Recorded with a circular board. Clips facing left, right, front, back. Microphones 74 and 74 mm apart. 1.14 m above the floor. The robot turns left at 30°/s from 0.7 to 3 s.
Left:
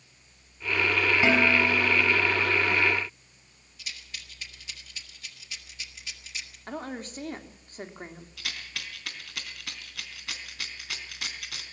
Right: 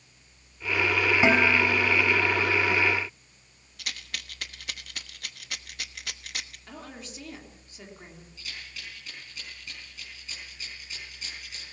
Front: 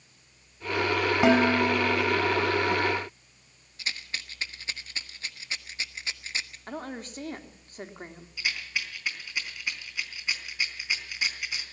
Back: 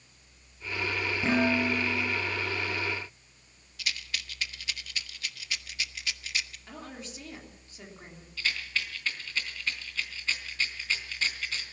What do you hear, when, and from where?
1.2 s dishes clattering: 15° right, 5.5 m; by 2.1 s 40° right, 5.5 m
3.8 s a rattle: 60° right, 1.2 m
6.7 s a woman speaking: 45° left, 3 m
8.4 s a rattle: 75° left, 3.5 m